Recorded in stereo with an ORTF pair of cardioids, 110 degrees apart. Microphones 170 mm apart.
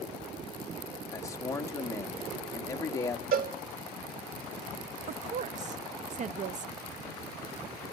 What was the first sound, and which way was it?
A man speaking, 20° left.